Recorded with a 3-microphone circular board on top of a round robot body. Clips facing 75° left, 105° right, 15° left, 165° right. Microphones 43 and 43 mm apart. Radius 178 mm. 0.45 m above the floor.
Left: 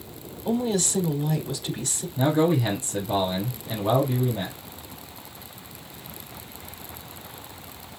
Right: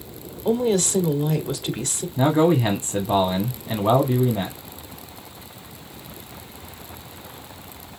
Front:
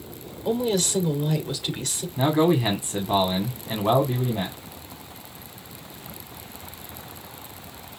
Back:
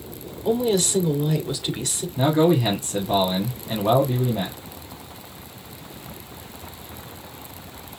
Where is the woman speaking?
80° right, 2 m.